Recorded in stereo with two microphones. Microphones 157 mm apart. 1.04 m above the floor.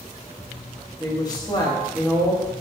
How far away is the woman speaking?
About 1.3 m.